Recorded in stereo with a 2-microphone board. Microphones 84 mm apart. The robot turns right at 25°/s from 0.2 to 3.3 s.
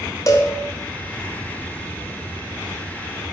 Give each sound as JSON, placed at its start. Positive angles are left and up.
{"t": 0.3, "sound": "a cowbell", "side_deg": 40, "distance_m": 2.0}